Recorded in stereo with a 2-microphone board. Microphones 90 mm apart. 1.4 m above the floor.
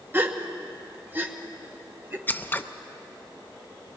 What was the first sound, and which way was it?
A gasp, 25° right (ahead or behind).